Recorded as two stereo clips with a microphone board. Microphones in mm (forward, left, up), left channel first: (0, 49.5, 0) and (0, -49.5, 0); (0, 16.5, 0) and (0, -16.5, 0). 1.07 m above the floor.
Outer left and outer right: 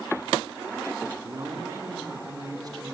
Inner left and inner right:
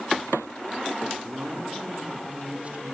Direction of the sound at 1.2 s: 45° right (ahead or behind).